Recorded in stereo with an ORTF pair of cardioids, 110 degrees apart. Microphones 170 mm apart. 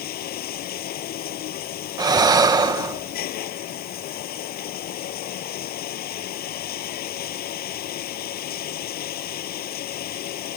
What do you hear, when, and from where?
0.0 s running water: 65° left
2.0 s breathing: 25° right